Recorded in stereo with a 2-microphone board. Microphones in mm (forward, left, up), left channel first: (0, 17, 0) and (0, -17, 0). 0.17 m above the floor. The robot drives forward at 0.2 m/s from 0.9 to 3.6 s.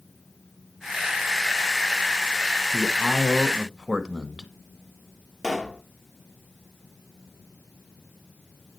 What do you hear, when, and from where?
2.7 s a man speaking: 10° right (ahead or behind), 1.1 m
5.4 s a pop: 5° left (ahead or behind), 1.1 m